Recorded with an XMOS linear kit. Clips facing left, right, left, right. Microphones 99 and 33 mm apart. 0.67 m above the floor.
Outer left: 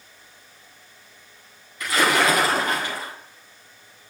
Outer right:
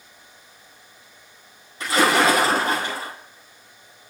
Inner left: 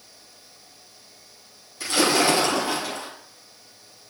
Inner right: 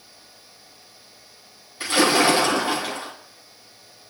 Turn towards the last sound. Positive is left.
turn(degrees=-30)  # may be behind; listen again after turning